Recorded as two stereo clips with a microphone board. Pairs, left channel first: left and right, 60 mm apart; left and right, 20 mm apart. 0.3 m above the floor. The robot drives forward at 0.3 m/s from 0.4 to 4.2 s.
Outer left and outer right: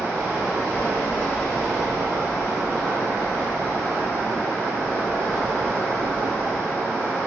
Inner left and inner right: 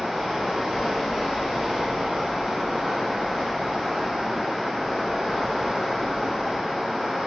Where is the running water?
65° right (ahead or behind), 1.2 m; by 7.3 s 55° right (ahead or behind), 1.4 m.